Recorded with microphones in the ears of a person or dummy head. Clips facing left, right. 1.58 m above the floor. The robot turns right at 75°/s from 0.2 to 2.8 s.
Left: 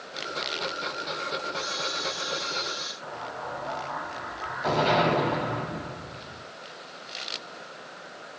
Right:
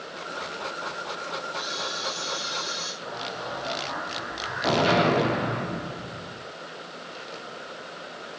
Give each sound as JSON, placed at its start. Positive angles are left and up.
{"t": 1.5, "sound": "a camera shutter", "azimuth_deg": 115, "distance_m": 7.0}
{"t": 3.0, "sound": "an explosion", "side_deg": -30, "distance_m": 9.5}